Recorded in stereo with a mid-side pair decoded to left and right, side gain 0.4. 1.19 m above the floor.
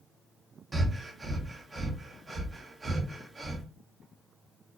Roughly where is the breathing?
Ahead right.